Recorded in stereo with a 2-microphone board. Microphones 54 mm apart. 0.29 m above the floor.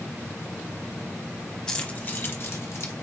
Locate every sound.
1.7 s keys jangling: 15° left (ahead or behind), 1.0 m; by 2.9 s 60° left (ahead or behind), 1.8 m